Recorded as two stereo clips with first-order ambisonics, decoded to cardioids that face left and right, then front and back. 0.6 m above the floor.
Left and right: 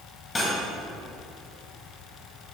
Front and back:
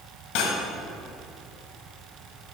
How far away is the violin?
No violin in this recording.